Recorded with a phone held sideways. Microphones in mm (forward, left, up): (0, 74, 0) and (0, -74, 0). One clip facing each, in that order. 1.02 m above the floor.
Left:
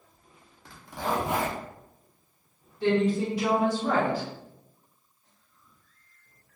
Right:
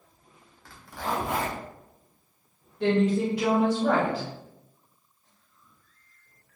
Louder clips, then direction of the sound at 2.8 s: Right 1 dB; 75° right (ahead or behind).